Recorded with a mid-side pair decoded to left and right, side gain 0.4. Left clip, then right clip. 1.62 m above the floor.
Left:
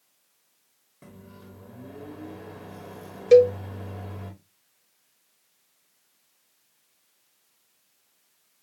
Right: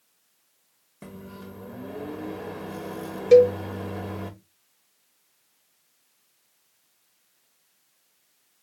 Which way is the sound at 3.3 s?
15° left.